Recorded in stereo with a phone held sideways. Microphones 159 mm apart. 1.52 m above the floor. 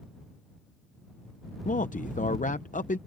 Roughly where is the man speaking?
Left.